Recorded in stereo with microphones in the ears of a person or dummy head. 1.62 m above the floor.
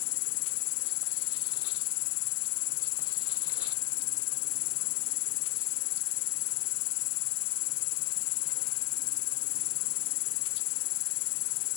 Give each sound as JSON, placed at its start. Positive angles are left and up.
{"t": 0.0, "sound": "an insect", "side_deg": 70}